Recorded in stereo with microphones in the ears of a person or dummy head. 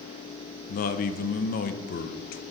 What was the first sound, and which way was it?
A man speaking, 45° left (ahead or behind).